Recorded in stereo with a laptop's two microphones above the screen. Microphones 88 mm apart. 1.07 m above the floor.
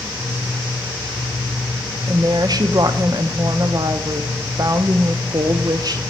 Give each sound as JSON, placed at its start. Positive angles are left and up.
{"t": 2.1, "sound": "a woman speaking", "side_deg": -45, "distance_m": 0.6}